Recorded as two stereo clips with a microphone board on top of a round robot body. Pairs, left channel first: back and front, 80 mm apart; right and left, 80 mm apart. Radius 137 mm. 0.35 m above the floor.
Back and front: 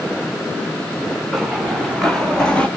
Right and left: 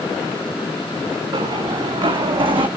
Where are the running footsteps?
90° left, 2.5 m; by 2.7 s 105° left, 1.6 m.